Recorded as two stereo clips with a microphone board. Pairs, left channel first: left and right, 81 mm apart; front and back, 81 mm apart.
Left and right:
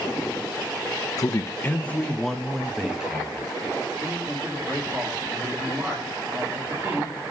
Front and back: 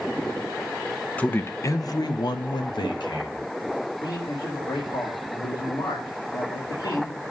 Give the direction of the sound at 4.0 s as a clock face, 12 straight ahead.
1 o'clock.